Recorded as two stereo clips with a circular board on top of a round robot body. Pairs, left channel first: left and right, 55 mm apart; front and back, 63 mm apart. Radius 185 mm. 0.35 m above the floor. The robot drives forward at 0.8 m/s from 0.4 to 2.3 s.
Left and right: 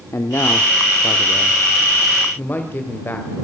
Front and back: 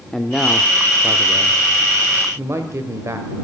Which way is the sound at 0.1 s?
85° left.